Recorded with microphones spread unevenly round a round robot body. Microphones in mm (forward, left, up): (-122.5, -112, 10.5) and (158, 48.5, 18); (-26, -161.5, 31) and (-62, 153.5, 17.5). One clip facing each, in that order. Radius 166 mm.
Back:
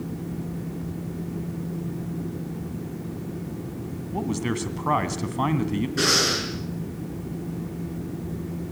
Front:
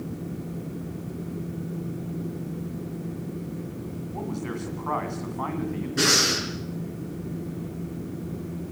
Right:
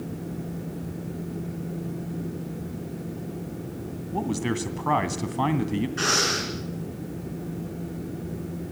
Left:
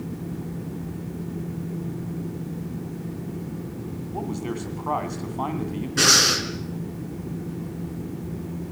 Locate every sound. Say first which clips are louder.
4.1 s a man speaking: back 6 dB, right 3 dB; 130° right, 2.5 m
6.0 s breathing: back 1 dB, left 3 dB; 115° left, 5.5 m